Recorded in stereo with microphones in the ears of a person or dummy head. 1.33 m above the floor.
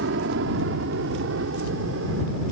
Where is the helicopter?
60° right (ahead or behind); by 2.5 s 70° right (ahead or behind).